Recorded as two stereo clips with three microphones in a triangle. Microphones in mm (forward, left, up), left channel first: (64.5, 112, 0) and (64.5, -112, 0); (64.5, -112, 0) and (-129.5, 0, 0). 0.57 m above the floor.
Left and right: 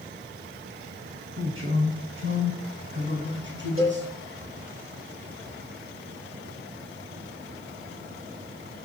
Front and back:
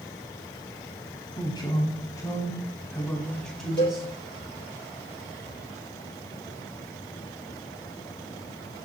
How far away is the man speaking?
About 4.5 m.